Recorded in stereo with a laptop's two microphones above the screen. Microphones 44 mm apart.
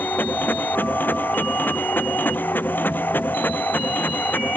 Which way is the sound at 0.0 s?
50° left (ahead or behind).